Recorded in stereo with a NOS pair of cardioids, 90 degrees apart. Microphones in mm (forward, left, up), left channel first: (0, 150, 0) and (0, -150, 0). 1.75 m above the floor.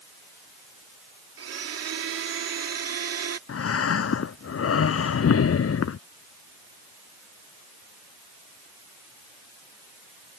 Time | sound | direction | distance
1.4 | a blender | 55° right | ?
3.5 | breathing | 50° left | ?